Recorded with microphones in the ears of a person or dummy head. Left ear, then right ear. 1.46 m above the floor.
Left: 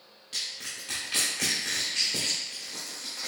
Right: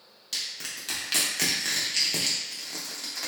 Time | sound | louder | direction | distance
0.3 | crushing | right 1 dB | 45° right (ahead or behind) | 0.9 m